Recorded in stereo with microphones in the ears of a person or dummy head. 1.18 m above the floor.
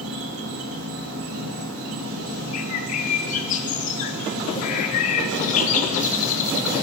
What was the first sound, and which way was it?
An insect, 70° right (ahead or behind).